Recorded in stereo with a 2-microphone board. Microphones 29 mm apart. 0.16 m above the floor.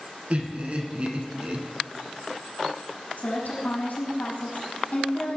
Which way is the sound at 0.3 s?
45° right (ahead or behind).